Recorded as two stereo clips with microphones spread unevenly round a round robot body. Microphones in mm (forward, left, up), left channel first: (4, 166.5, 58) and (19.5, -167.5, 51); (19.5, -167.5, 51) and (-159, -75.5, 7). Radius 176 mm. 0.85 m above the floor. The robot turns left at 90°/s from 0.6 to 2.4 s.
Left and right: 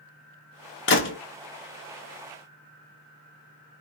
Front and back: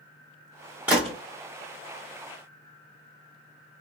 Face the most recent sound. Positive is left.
turn(degrees=-40)